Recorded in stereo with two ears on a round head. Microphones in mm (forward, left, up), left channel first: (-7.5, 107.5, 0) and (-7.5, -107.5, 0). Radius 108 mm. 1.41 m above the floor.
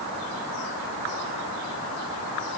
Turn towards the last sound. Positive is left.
No sound to turn to.